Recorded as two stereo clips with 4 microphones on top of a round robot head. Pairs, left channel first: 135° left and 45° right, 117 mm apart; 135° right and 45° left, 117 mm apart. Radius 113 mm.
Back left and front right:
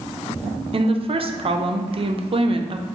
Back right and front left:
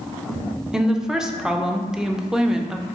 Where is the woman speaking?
40° right, 0.5 m.